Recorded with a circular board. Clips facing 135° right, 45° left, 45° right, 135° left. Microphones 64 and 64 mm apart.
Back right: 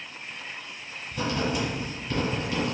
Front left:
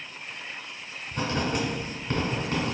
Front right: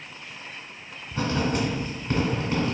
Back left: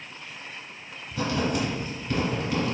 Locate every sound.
1.1 s writing: 5° left, 1.3 m